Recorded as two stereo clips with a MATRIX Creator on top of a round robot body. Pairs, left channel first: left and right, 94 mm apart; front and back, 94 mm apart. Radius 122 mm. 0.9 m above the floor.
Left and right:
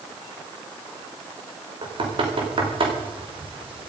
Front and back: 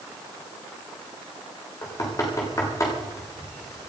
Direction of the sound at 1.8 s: 60° right.